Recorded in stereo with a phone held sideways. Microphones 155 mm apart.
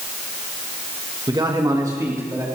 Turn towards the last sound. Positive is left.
turn(degrees=-20)  # may be behind; listen again after turning